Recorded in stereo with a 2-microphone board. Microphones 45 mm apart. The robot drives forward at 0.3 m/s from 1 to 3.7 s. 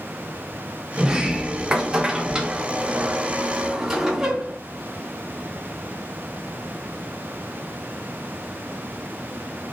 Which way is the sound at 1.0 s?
15° right (ahead or behind).